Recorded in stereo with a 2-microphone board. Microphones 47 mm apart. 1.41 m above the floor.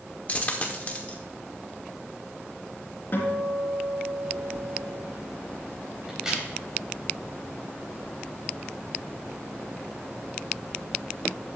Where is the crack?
15° right (ahead or behind), 4.5 m.